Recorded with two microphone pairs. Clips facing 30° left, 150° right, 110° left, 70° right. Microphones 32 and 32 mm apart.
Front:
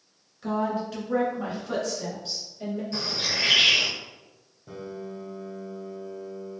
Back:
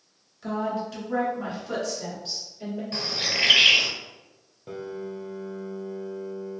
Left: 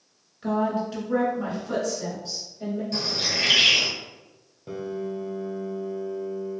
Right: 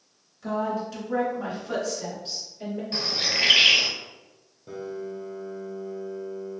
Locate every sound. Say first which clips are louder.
0.4 s a woman speaking: front 1 dB, left 3 dB; 110° left, 1.4 m; by 2.8 s 60° right, 1.6 m
2.9 s a bird: back 3 dB, right 3 dB; 125° right, 0.7 m
4.7 s a piano: back 3 dB, left 3 dB; 170° left, 0.7 m